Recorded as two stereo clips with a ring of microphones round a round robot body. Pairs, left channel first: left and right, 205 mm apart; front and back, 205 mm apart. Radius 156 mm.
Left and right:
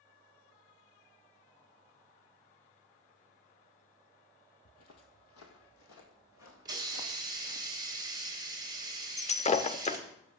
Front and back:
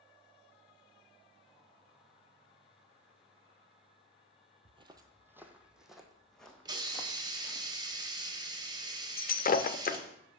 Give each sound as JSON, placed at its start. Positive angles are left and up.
{"t": 4.7, "sound": "footsteps", "azimuth_deg": 120, "distance_m": 0.9}
{"t": 6.7, "sound": "a hiss", "azimuth_deg": -135, "distance_m": 0.9}
{"t": 9.2, "sound": "breaking glass", "azimuth_deg": 40, "distance_m": 0.6}